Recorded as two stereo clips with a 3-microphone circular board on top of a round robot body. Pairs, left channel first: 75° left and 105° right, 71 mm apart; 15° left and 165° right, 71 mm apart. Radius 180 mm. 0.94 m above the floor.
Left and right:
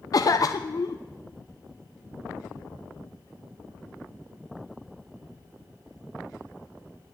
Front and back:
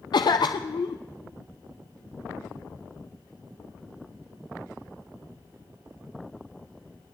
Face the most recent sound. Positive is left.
turn(degrees=35)